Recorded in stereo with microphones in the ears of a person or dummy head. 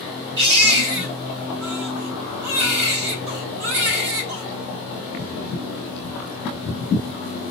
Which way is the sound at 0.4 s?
75° right (ahead or behind).